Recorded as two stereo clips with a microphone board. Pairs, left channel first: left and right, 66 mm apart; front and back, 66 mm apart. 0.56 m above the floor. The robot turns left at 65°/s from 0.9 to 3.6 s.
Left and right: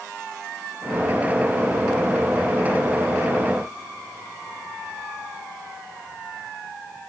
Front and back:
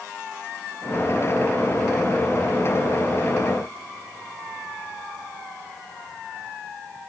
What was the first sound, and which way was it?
Only background noise.